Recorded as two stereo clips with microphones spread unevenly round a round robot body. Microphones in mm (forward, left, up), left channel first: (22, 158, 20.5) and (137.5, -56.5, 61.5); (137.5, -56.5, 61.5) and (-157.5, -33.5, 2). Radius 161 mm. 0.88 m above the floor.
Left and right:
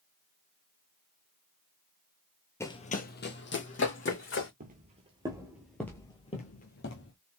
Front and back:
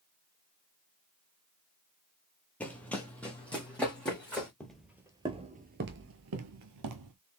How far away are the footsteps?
About 1.1 m.